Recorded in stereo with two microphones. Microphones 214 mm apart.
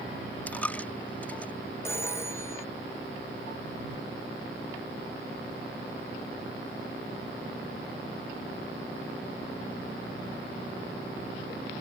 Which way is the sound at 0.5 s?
5° left (ahead or behind).